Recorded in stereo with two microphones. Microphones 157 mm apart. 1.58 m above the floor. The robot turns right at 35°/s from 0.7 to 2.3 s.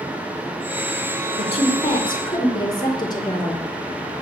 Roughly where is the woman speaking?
Left.